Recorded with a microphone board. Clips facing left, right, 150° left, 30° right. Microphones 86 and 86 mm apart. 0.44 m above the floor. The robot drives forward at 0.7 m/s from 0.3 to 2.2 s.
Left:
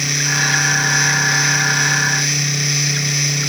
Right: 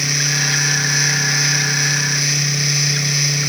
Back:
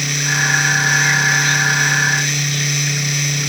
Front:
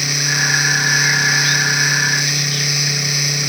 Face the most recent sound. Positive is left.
No sound to turn to.